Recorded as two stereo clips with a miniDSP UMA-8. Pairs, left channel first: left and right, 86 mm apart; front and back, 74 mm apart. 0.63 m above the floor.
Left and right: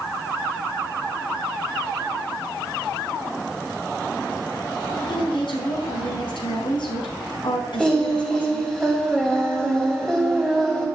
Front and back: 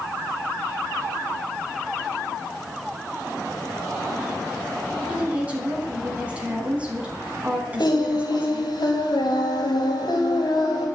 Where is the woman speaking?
110° left, 5 m.